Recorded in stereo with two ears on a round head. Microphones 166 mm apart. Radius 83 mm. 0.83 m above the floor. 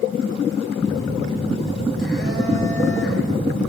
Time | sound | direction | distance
0.8 | a phone buzzing | centre (ahead or behind) | 0.7 m